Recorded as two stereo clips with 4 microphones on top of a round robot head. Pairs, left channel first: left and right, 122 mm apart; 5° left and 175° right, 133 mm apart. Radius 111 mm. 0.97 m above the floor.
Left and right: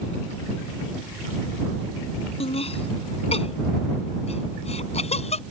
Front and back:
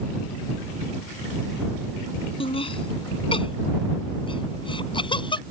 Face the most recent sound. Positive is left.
turn(degrees=60)